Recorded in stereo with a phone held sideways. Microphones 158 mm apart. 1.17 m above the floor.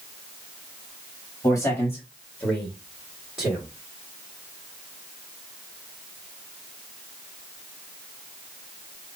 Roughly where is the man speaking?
Centre.